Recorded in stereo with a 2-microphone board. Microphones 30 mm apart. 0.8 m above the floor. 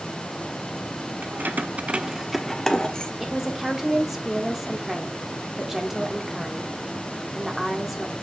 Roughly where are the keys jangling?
Right.